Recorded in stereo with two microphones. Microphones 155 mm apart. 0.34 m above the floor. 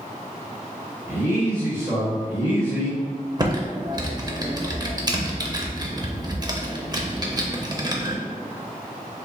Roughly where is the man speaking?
Centre.